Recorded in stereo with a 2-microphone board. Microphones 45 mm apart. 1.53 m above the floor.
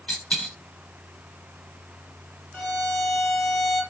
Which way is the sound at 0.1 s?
25° left (ahead or behind).